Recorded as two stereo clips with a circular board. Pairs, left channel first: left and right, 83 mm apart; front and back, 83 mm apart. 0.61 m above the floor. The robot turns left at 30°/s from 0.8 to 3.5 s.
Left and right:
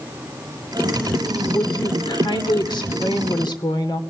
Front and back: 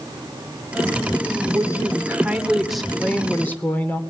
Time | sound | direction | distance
1.4 | a woman speaking | 130° left | 2 m